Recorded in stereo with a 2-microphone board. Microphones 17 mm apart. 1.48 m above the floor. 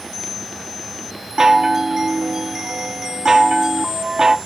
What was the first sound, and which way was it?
A chime, 35° right (ahead or behind).